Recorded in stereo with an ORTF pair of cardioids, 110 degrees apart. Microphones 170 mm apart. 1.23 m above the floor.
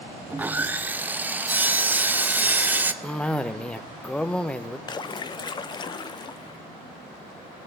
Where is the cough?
5° left, 0.6 m.